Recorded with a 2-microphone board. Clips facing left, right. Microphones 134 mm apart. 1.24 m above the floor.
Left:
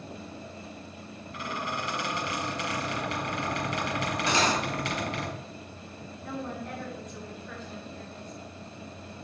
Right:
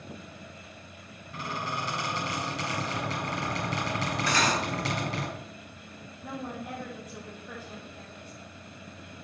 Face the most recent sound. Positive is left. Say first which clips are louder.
# left 1 dB
turn(degrees=-10)  # may be behind; listen again after turning